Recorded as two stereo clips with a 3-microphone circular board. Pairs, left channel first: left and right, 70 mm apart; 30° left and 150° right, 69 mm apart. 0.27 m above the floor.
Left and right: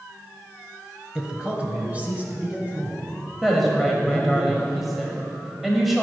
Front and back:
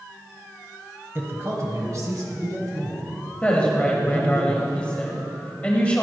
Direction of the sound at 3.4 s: 5° right.